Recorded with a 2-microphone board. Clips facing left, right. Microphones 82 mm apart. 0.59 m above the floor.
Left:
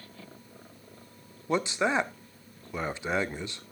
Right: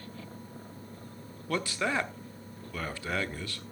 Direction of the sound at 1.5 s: 20° left (ahead or behind).